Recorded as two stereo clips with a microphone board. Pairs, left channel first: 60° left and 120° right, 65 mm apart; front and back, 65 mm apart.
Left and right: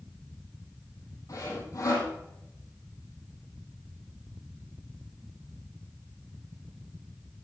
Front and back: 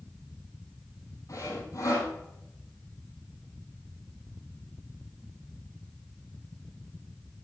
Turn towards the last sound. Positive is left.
turn(degrees=35)